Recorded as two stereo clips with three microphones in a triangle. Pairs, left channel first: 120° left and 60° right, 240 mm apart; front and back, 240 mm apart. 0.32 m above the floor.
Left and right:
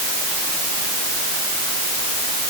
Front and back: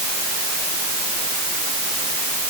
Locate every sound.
Only background noise.